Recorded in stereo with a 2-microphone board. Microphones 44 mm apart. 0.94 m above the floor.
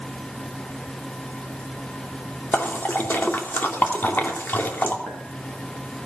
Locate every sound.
2.5 s a splash: 45° left (ahead or behind), 2.5 m
5.1 s a clink: 70° left (ahead or behind), 6 m